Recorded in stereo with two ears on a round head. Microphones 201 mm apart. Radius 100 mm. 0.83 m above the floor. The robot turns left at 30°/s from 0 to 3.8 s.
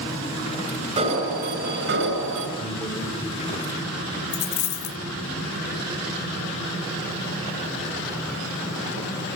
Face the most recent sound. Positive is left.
turn(degrees=60)  # may be behind; listen again after turning